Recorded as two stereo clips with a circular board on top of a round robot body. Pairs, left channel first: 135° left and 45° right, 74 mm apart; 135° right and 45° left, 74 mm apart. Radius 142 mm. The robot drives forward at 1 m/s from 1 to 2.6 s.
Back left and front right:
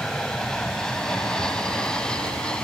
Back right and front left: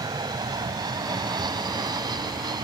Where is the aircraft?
55° left.